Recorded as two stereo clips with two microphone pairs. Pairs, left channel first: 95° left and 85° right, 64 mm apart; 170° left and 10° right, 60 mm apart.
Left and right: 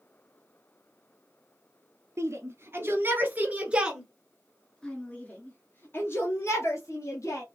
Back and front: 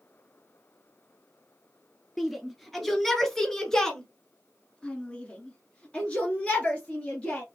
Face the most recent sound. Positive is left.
turn(degrees=100)